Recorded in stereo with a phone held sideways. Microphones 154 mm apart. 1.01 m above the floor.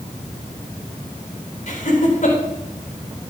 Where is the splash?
I don't hear a splash.